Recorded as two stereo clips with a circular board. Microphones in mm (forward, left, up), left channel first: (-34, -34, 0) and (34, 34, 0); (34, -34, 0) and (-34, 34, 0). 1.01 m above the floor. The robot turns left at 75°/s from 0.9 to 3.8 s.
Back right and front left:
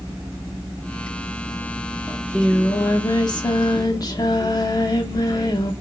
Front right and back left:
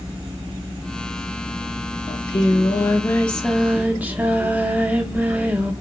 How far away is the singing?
About 0.6 m.